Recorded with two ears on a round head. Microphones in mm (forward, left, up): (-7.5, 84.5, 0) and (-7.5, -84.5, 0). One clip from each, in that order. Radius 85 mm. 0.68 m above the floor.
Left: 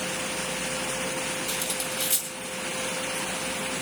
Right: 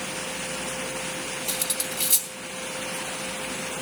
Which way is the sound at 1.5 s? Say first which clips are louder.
Even; 25° right (ahead or behind).